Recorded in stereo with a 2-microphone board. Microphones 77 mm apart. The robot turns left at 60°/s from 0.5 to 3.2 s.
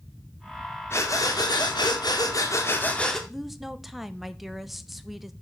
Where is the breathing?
145° left, 1.8 m; by 3.2 s 5° left, 1.8 m.